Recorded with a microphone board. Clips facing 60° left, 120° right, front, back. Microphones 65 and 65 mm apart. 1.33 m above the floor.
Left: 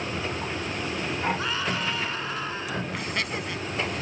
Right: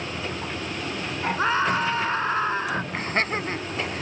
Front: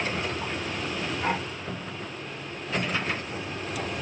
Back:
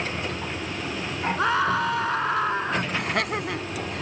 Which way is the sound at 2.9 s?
175° right.